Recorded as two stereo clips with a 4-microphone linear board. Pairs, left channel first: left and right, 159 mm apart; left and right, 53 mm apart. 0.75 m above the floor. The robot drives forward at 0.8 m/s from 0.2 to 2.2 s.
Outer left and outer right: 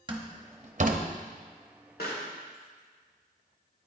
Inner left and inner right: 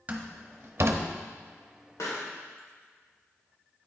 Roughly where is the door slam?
Right.